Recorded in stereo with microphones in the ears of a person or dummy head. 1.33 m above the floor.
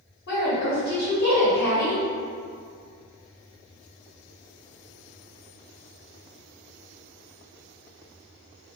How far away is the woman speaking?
About 1.4 m.